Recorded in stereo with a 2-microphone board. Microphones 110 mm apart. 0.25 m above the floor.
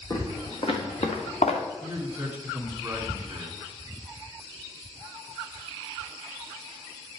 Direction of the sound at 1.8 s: 15° right (ahead or behind).